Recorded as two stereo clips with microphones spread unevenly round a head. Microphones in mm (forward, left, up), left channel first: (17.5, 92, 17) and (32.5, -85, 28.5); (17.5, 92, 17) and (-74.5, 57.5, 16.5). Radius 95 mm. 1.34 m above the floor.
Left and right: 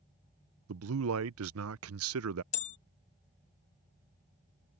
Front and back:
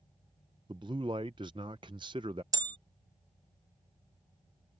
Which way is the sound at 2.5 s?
150° left.